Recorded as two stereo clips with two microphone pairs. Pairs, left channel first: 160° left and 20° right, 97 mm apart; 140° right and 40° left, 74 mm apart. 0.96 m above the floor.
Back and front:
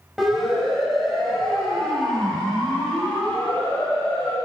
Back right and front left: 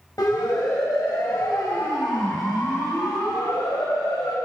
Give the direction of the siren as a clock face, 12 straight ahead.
4 o'clock.